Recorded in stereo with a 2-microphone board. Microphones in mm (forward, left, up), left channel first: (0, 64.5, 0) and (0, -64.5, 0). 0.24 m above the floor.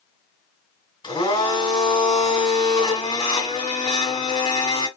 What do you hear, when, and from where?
1.0 s a blender: 40° left (ahead or behind), 2 m